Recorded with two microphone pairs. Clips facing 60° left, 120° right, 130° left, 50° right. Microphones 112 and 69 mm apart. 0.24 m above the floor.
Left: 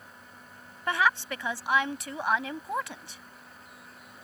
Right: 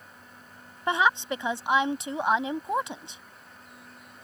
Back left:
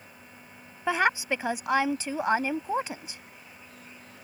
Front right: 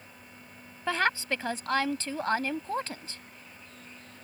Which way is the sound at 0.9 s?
165° right.